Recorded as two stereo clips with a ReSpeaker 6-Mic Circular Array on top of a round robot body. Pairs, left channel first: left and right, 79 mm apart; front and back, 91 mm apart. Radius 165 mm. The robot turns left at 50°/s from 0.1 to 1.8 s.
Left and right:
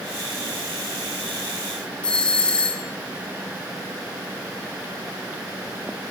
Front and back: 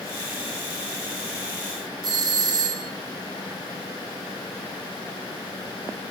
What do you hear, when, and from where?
2.0 s a doorbell: 160° left, 1.9 m